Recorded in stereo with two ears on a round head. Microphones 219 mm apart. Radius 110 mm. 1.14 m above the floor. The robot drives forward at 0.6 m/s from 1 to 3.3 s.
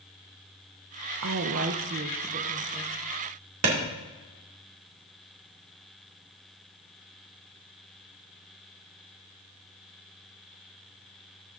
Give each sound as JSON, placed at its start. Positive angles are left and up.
{"t": 1.2, "sound": "a woman speaking", "side_deg": -65, "distance_m": 0.6}
{"t": 3.6, "sound": "a clap", "side_deg": -65, "distance_m": 2.0}